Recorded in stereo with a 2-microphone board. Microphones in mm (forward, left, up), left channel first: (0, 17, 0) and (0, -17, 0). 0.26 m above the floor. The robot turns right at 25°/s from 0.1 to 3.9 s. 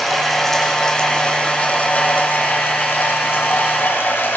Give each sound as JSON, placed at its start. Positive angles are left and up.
{"t": 0.0, "sound": "running water", "azimuth_deg": 0, "distance_m": 5.0}